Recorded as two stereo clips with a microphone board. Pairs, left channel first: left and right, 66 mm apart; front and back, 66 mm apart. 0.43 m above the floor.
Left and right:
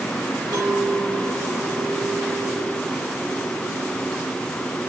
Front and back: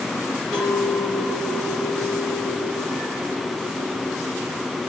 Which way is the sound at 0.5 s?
75° right.